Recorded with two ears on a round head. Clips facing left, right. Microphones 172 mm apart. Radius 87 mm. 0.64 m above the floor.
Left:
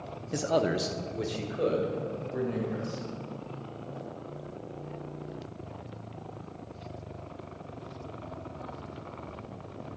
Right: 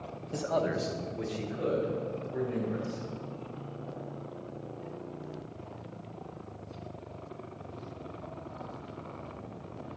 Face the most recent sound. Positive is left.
turn(degrees=55)  # may be behind; listen again after turning